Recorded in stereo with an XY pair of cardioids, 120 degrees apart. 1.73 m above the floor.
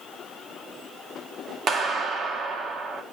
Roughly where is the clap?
Ahead right.